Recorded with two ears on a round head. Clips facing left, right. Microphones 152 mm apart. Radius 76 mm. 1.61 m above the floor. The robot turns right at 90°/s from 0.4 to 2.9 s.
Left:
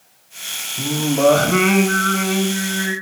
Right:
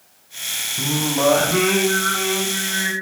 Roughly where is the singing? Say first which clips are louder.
Left 4 dB; ahead.